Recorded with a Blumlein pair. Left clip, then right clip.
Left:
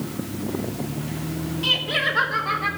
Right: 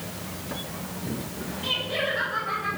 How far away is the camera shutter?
No camera shutter in this recording.